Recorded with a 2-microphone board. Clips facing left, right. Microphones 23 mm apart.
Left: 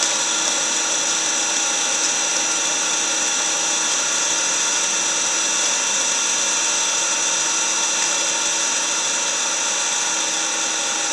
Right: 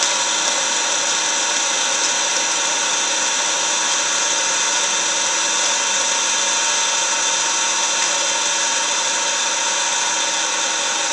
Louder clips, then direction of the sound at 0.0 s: Right 2 dB; 5° right (ahead or behind).